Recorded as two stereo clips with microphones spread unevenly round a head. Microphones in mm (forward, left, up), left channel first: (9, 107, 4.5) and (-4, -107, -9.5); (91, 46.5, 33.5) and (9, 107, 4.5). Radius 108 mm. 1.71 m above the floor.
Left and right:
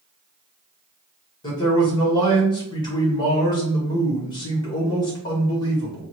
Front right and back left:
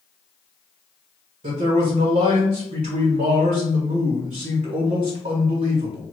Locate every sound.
1.4 s a man speaking: 155° left, 1.1 m